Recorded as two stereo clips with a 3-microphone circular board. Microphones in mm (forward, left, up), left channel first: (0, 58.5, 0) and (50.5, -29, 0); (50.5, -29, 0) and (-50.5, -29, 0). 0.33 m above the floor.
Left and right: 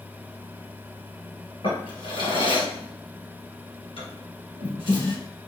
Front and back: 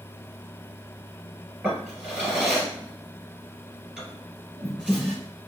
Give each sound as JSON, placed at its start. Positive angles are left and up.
{"t": 1.6, "sound": "a drawer", "azimuth_deg": 95, "distance_m": 1.6}